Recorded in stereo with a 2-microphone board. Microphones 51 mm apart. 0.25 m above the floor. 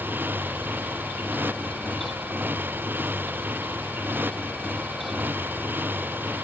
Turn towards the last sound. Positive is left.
turn(degrees=-40)  # may be behind; listen again after turning